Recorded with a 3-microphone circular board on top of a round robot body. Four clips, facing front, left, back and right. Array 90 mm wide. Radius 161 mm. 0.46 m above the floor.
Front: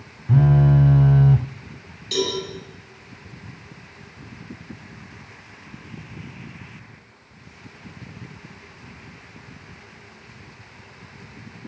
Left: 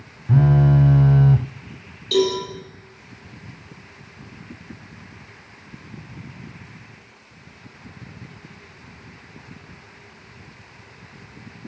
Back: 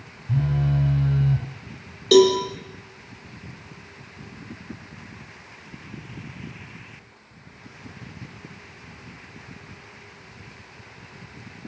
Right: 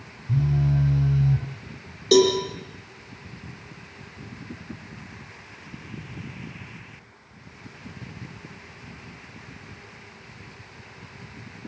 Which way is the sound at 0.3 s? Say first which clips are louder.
Left 7 dB, front 7 dB; 55° left.